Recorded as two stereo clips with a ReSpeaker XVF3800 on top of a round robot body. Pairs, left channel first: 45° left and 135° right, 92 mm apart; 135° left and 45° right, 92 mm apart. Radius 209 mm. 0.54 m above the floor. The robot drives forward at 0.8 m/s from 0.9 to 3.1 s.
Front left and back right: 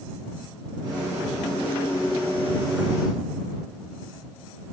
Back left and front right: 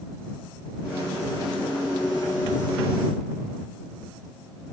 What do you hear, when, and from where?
Only background noise.